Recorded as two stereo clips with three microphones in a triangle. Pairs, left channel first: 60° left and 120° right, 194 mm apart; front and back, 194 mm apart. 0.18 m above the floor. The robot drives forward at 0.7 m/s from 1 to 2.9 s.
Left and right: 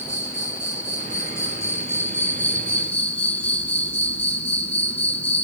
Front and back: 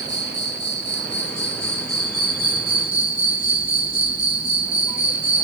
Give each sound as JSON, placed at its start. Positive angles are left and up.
{"t": 0.0, "sound": "an insect", "azimuth_deg": -15, "distance_m": 4.0}